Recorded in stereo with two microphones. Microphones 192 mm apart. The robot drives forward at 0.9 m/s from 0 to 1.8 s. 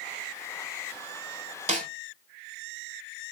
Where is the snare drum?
40° right (ahead or behind), 0.5 m; by 1.9 s 45° right (ahead or behind), 0.5 m.